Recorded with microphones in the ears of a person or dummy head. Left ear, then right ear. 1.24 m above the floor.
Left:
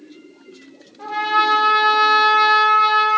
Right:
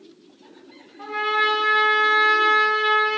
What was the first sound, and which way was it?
A trumpet, 10° right (ahead or behind).